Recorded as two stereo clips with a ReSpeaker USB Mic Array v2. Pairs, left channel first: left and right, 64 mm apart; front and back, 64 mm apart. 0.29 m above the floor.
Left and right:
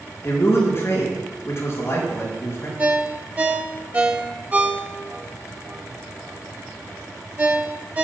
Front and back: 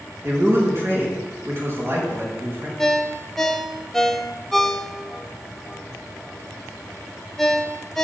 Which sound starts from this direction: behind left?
A man speaking, at 0.2 s.